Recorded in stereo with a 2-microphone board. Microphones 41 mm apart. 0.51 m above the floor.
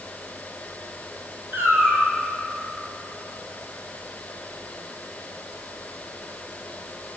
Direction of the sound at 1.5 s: 90° right.